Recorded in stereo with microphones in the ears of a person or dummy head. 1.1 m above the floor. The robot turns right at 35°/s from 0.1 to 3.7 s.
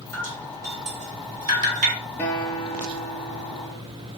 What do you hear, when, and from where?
0.1 s dripping: 80° right, 3.5 m; by 2.0 s 35° right (ahead or behind), 3.5 m
2.2 s a guitar: 15° left, 3.5 m; by 3.8 s 70° left, 3.5 m